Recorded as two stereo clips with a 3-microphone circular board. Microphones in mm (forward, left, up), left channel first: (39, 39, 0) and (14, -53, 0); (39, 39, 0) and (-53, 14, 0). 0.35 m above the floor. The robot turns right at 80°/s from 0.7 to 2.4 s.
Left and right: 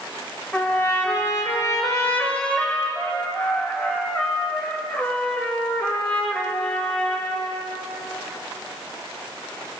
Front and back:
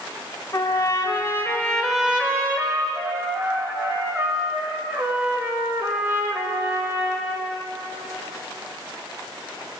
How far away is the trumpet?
About 1.8 m.